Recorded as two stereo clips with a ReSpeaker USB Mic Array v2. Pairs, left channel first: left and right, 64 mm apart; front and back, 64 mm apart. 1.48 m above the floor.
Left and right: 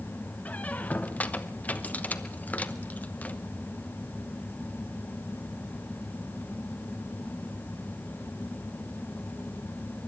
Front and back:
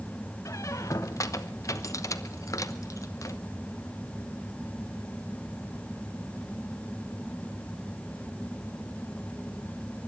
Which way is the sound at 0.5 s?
25° left.